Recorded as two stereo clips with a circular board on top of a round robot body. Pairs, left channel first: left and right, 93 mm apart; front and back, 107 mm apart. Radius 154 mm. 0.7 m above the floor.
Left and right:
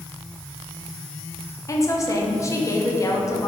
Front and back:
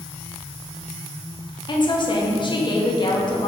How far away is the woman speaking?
About 1.2 m.